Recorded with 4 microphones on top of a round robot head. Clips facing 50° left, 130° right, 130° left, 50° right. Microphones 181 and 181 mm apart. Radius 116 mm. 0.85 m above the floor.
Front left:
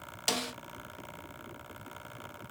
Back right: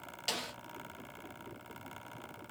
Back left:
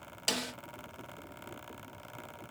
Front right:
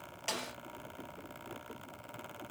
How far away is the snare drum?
About 0.7 m.